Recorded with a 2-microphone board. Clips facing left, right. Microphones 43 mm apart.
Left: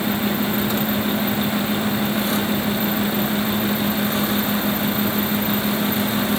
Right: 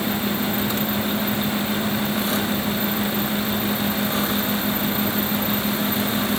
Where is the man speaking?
I don't hear a man speaking.